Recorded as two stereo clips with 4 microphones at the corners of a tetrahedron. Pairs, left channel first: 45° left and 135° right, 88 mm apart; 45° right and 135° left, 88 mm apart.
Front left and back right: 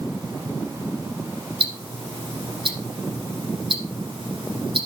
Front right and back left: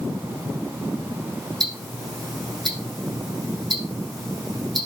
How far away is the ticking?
About 7.5 m.